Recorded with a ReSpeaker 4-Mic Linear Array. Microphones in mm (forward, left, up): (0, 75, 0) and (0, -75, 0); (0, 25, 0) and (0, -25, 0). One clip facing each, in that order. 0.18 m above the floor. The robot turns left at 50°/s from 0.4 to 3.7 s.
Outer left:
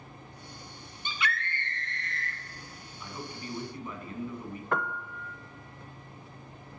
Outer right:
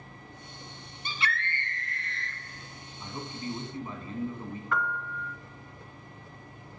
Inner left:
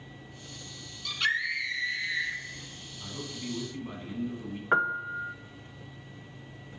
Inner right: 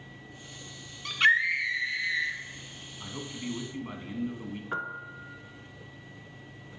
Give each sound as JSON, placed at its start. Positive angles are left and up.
{"t": 1.1, "sound": "a scream", "azimuth_deg": -130, "distance_m": 1.5}
{"t": 3.0, "sound": "a man speaking", "azimuth_deg": -80, "distance_m": 1.1}
{"t": 4.7, "sound": "a piano", "side_deg": 50, "distance_m": 0.5}